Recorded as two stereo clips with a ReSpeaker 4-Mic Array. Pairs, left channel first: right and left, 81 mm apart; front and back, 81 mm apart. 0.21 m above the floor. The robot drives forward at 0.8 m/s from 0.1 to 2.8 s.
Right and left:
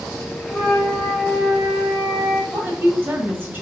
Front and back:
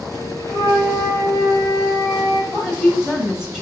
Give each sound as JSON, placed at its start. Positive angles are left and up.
{"t": 0.5, "sound": "a flute", "azimuth_deg": -170, "distance_m": 1.6}
{"t": 2.5, "sound": "a woman speaking", "azimuth_deg": 90, "distance_m": 1.3}